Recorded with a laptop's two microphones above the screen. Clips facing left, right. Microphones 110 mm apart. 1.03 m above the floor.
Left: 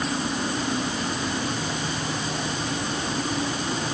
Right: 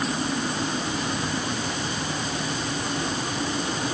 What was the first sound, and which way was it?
Only background noise.